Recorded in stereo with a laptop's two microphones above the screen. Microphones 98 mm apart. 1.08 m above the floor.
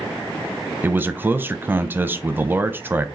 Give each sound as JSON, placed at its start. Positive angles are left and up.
{"t": 0.8, "sound": "a man speaking", "side_deg": -20, "distance_m": 0.6}